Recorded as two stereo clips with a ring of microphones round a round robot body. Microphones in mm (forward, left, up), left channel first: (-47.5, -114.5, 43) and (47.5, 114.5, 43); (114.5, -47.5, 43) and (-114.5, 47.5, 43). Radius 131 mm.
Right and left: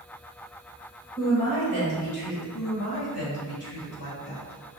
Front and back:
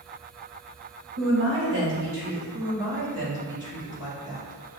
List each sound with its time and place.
1.2 s a woman speaking: 175° right, 1.8 m; by 2.4 s 155° right, 2.5 m
2.5 s a woman speaking: 130° right, 1.9 m